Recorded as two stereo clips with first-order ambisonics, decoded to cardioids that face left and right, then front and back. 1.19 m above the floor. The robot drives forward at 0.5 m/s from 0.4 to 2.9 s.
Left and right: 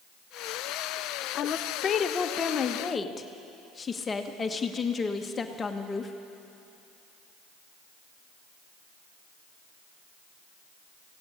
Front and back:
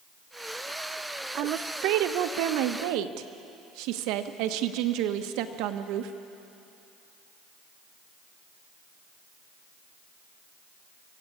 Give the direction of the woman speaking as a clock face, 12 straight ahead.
7 o'clock.